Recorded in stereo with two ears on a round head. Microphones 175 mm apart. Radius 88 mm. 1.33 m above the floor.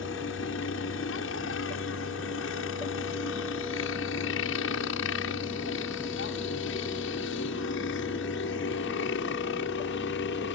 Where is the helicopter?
70° left (ahead or behind); by 10.6 s 65° left (ahead or behind).